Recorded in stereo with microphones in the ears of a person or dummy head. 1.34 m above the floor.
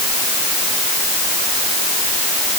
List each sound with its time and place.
Only background noise.